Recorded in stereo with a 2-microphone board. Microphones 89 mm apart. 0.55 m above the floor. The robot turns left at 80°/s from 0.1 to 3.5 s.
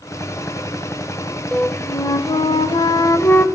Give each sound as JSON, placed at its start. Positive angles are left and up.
{"t": 1.5, "sound": "a flute", "azimuth_deg": 170, "distance_m": 0.7}